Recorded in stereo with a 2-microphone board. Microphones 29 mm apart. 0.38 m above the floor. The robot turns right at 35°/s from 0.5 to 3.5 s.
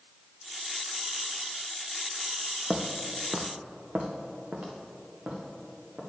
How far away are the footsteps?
About 0.9 m.